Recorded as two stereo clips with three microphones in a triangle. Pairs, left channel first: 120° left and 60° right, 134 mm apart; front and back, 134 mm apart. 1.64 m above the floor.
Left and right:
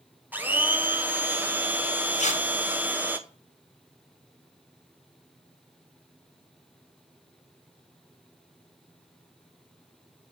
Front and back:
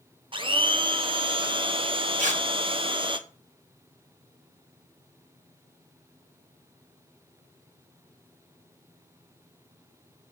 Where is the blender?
135° right, 0.7 m.